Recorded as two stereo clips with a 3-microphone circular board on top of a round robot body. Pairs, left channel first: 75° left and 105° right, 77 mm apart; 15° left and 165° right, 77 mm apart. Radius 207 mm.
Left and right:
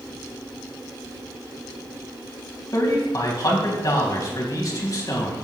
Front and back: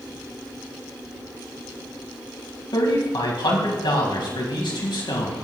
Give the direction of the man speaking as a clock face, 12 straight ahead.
11 o'clock.